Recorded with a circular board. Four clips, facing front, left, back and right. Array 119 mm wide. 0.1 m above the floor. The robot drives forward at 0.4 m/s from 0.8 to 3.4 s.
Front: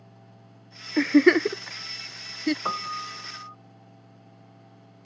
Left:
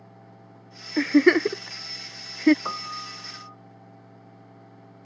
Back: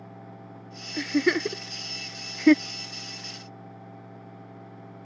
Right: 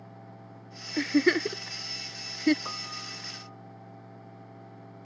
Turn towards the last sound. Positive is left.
turn(degrees=30)